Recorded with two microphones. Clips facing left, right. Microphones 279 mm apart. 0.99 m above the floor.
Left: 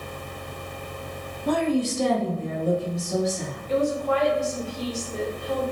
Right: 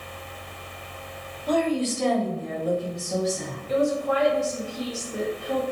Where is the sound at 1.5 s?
65° left (ahead or behind), 0.7 m; by 3.6 s 20° left (ahead or behind), 2.5 m.